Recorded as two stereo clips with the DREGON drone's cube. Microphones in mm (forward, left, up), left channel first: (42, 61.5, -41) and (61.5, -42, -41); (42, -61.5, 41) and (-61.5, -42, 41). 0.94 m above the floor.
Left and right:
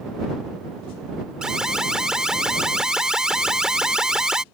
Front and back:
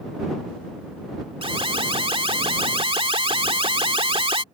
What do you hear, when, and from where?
1.4 s an alarm: 165° right